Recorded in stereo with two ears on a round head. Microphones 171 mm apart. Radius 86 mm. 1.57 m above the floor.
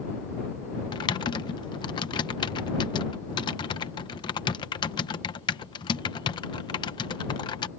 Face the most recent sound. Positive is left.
turn(degrees=25)  # may be behind; listen again after turning